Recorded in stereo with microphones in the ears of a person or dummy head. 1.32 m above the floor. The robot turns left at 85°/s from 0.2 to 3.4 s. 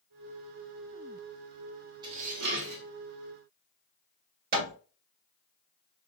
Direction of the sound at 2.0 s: 25° right.